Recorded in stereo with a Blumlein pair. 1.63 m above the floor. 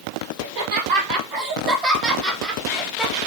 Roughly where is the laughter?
Ahead right.